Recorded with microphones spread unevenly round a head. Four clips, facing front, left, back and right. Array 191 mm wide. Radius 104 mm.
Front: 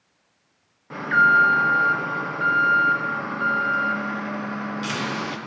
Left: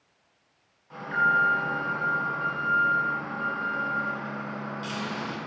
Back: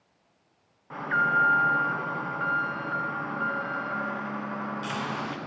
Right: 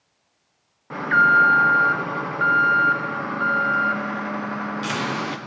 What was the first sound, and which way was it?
An alarm, 70° right.